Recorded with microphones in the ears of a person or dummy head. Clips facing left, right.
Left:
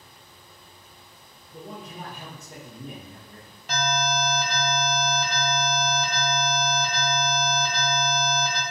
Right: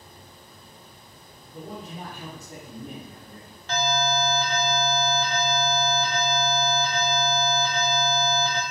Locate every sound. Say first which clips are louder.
1.5 s a man speaking: right 2 dB; 45° left (ahead or behind), 0.9 m
3.7 s an alarm: right 2 dB; 15° left (ahead or behind), 0.7 m